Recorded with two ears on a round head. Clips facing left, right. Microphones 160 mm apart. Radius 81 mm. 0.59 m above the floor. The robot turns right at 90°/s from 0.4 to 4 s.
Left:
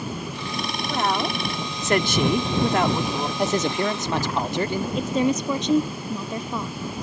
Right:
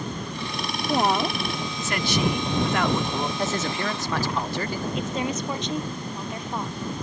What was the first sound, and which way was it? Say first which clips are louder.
A woman speaking: right 2 dB; 30° right.